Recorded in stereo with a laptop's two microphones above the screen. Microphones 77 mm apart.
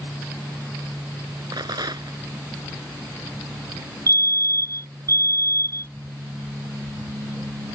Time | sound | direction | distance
1.5 | a rattle | 60° right (ahead or behind) | ?
4.1 | a fire alarm | 50° right (ahead or behind) | ?